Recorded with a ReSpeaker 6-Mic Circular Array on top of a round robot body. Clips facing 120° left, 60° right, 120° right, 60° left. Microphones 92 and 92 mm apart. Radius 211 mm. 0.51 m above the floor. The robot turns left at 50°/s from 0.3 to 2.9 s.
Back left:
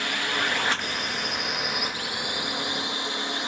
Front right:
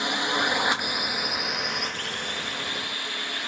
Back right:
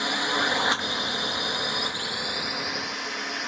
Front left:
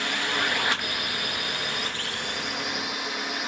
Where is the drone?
85° right; by 3.5 s 145° left.